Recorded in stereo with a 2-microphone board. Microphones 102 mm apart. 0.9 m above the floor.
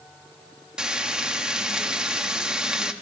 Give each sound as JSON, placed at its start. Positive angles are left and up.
{"t": 0.8, "sound": "frying", "side_deg": -10, "distance_m": 1.0}